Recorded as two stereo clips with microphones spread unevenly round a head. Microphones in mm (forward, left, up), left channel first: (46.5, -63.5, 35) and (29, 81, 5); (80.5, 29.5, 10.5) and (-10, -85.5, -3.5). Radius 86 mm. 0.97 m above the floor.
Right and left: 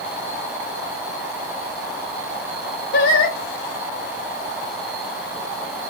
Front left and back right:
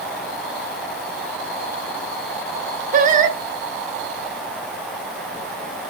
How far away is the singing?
About 0.8 m.